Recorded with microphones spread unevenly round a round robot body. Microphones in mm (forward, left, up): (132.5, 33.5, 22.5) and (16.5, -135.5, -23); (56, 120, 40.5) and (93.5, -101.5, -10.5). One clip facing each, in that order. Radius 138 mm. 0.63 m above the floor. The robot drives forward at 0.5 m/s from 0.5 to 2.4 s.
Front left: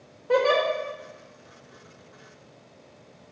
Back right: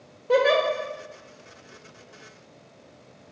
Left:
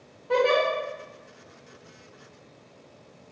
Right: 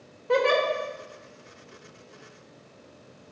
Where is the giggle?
55° right, 1.5 m.